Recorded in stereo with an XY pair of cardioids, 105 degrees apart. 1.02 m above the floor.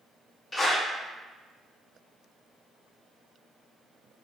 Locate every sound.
0.5 s a clap: 20° left, 1.2 m